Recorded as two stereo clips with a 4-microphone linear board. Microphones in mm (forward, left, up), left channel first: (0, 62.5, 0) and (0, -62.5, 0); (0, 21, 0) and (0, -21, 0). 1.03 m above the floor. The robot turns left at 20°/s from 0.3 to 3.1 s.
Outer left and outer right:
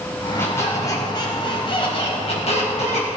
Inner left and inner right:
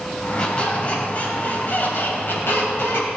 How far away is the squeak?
About 3 m.